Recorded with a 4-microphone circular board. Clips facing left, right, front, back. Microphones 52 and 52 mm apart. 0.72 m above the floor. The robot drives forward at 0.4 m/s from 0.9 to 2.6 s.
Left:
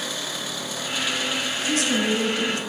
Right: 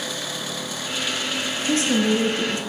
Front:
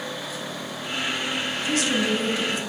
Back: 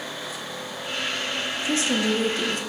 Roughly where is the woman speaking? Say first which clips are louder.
Right 3 dB, even; behind right.